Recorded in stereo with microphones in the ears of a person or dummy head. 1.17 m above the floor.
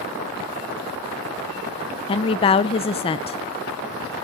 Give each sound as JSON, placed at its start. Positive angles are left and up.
{"t": 2.1, "sound": "a woman speaking", "side_deg": 25, "distance_m": 0.7}